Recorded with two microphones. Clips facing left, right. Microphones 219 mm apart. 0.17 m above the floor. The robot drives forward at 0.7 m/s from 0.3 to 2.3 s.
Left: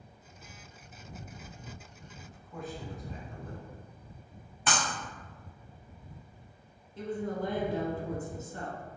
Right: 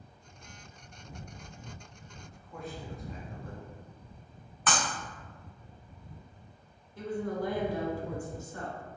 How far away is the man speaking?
About 1.4 m.